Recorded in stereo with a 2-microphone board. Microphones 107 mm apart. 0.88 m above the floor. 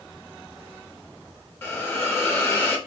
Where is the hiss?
20° left (ahead or behind), 0.9 m.